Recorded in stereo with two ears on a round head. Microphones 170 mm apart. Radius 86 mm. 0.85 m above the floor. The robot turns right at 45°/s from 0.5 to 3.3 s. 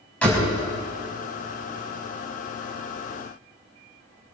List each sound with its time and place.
0.2 s a door slam: 5° left (ahead or behind), 4.5 m